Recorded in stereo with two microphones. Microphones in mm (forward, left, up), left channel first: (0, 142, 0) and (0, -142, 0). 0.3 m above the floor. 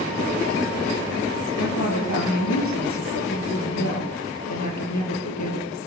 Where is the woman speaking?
80° left, 7.5 m.